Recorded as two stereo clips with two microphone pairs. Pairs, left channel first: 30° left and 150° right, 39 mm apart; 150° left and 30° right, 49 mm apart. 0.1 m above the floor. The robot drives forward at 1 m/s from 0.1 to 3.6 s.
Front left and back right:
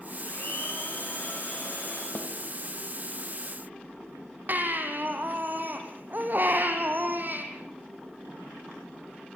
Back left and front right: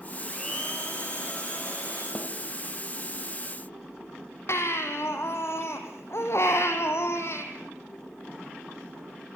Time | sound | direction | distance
0.2 | a blender | 70° left | 7.5 m
2.1 | a snare drum | 85° left | 4 m
4.5 | a baby crying | 175° left | 3 m